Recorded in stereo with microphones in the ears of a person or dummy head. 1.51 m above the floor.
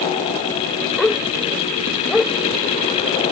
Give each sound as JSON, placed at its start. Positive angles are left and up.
{"t": 1.0, "sound": "a dog barking", "side_deg": 0}